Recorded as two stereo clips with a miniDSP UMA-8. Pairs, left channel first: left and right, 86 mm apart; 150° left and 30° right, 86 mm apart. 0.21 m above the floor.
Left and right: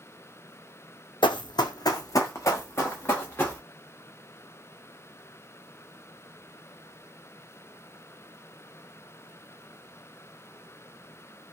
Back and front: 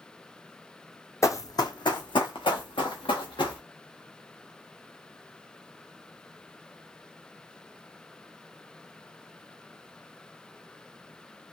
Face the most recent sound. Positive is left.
turn(degrees=160)